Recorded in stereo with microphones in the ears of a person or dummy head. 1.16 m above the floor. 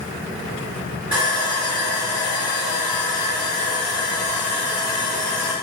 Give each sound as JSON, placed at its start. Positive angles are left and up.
{"t": 1.1, "sound": "sawing", "side_deg": -25, "distance_m": 1.2}